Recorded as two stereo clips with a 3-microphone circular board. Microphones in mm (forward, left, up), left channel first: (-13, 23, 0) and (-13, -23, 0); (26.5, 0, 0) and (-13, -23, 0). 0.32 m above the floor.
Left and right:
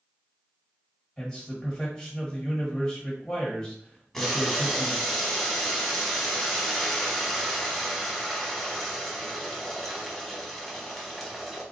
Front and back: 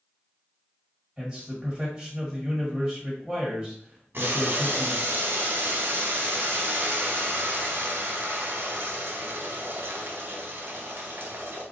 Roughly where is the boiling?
Behind.